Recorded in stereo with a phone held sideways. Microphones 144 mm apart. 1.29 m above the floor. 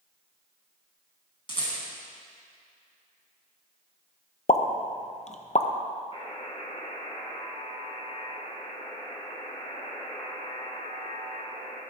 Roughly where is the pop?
Left.